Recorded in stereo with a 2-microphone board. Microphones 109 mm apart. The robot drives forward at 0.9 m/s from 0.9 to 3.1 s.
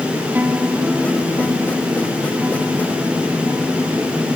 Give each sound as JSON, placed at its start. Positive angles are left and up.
{"t": 0.3, "sound": "a guitar", "side_deg": -15}